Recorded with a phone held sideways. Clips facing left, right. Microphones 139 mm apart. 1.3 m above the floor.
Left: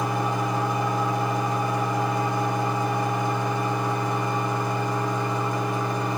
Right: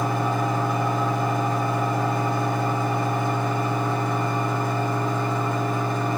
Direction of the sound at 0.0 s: 15° left (ahead or behind).